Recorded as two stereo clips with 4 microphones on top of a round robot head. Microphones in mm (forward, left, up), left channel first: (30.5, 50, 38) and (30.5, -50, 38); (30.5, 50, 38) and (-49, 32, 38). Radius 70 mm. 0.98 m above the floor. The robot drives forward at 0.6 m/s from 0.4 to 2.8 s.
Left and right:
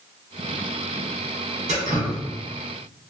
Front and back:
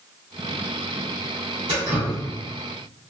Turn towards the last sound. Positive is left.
turn(degrees=-140)